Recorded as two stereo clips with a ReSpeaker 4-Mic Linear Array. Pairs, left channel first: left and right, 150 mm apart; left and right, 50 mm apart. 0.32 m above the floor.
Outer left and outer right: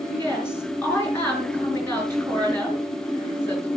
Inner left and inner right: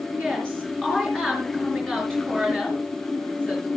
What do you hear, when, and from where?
0.1 s a woman speaking: 15° left (ahead or behind), 5 m